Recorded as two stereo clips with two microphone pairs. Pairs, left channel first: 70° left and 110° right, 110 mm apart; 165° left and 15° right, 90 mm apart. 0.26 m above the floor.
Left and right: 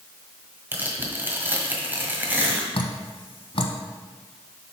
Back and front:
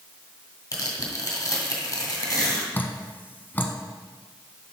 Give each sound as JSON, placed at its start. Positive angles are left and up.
{"t": 0.7, "sound": "tearing paper", "azimuth_deg": -170, "distance_m": 1.7}
{"t": 2.7, "sound": "dripping", "azimuth_deg": 100, "distance_m": 0.7}